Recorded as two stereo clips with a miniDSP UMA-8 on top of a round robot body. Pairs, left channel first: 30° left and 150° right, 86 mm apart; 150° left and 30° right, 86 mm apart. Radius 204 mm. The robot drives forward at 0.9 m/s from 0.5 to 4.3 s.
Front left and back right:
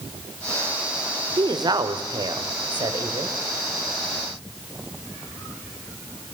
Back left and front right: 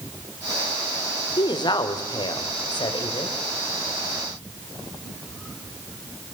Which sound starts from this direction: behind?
A woman speaking, at 1.4 s.